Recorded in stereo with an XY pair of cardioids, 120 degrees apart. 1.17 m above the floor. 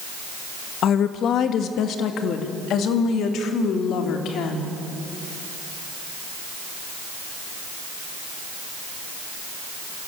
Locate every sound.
0.8 s a woman speaking: 60° left, 1.7 m; by 4.7 s 70° left, 3.5 m